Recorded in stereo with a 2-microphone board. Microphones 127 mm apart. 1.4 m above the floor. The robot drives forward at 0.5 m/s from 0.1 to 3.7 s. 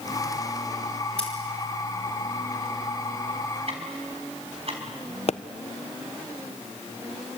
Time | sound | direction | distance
1.2 | scissors | 10° left (ahead or behind) | 5 m
3.7 | ticking | 50° right (ahead or behind) | 4.5 m
5.3 | a pop | 55° left (ahead or behind) | 0.5 m